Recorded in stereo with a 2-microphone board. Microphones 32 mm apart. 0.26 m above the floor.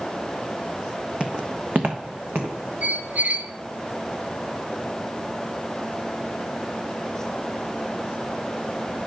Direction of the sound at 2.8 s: 60° right (ahead or behind).